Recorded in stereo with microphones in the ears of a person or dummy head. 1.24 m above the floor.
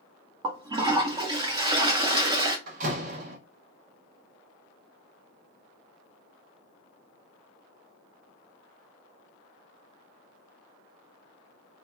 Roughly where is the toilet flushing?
Right.